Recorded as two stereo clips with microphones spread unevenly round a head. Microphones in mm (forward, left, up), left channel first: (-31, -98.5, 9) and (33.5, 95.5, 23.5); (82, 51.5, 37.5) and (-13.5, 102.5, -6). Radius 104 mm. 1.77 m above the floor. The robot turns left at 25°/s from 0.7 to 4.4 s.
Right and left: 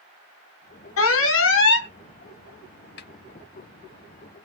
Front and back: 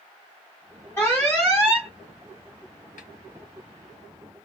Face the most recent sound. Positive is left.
turn(degrees=-100)